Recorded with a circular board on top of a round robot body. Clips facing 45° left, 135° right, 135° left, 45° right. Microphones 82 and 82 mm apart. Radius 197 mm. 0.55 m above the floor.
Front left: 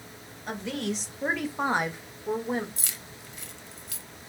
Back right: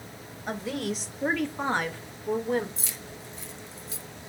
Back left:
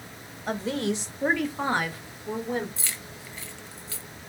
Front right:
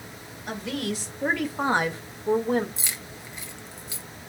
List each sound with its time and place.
0.5 s a woman speaking: 150° left, 1.5 m; by 2.7 s 20° right, 1.8 m
2.8 s keys jangling: 25° left, 1.2 m